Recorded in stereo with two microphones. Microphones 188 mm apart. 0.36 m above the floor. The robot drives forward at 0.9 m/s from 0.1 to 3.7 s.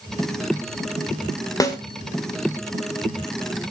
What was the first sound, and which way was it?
A snare drum, 20° left (ahead or behind).